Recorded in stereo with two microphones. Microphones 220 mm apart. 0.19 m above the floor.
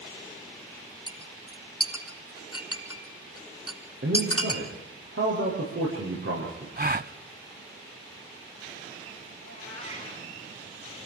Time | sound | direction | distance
1.1 | a clink | 80° left | 3.5 m
4.0 | a man speaking | 65° right (ahead or behind) | 9 m
6.8 | a gasp | 40° right (ahead or behind) | 0.5 m
9.4 | a cat meowing | 55° right (ahead or behind) | 5.5 m